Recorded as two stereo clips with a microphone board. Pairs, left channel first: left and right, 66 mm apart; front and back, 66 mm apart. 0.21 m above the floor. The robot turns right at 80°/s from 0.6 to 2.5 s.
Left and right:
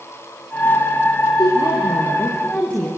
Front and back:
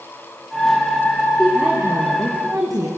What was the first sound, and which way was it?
A woman speaking, 75° left.